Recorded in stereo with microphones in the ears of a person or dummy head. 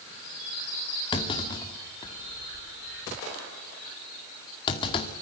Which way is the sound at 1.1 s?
25° left (ahead or behind).